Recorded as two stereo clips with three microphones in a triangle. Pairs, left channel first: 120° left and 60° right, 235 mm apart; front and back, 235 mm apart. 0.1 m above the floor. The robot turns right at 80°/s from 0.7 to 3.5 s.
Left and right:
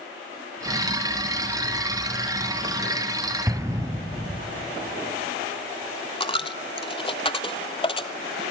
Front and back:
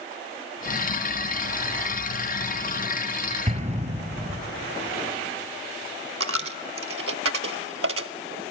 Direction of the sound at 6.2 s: 175° right.